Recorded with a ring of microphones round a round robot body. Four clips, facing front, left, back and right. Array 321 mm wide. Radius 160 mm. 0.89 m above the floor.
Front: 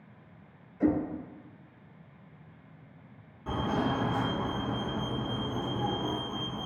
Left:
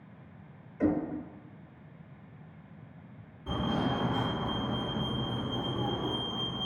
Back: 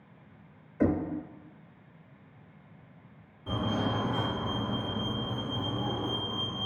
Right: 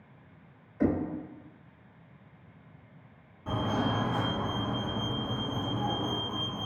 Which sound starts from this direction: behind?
Knocking, at 0.8 s.